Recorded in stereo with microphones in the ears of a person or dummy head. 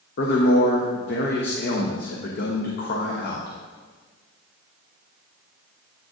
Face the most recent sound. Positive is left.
turn(degrees=40)  # may be behind; listen again after turning